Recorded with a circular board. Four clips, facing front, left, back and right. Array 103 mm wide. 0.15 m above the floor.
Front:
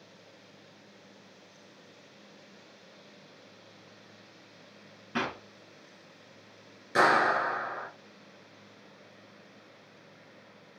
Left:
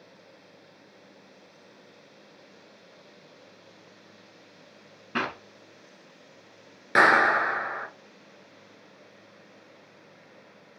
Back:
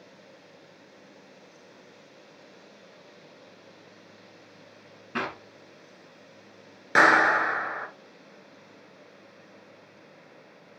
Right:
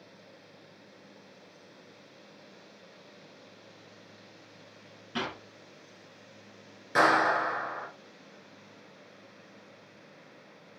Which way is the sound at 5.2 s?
105° left.